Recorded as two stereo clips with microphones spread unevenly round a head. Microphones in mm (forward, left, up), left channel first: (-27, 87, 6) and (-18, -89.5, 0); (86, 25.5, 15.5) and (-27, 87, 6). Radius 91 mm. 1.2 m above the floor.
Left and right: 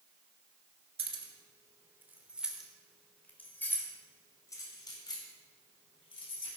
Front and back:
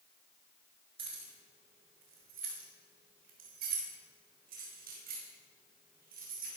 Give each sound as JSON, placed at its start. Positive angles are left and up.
{"t": 1.0, "sound": "keys jangling", "azimuth_deg": -145, "distance_m": 2.5}